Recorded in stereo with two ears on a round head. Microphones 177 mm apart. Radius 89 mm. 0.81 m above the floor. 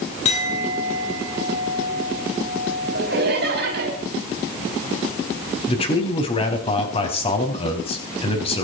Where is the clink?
35° left (ahead or behind), 6 m.